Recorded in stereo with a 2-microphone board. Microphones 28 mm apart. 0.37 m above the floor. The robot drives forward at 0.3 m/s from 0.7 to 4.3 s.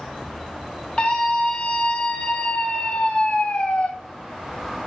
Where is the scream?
45° left (ahead or behind), 2 m; by 3.9 s 55° left (ahead or behind), 1.8 m.